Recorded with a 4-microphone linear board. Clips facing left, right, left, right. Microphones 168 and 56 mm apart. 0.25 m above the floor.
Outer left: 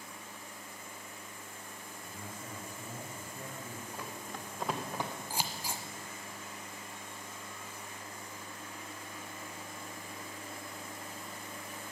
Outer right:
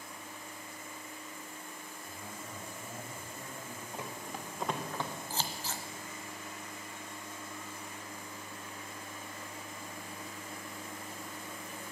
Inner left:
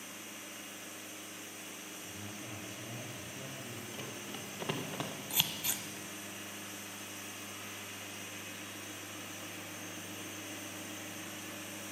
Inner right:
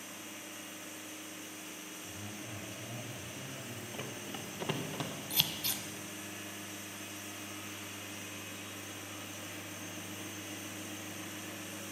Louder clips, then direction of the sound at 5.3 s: Even, inner right 1 dB; 10° left (ahead or behind).